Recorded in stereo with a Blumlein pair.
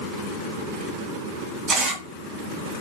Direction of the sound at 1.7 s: 30° right.